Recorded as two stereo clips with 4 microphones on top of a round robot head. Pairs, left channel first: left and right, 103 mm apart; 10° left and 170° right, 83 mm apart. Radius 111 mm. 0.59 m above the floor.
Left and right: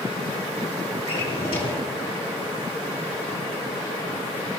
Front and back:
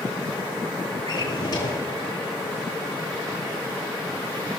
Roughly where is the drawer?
Ahead left.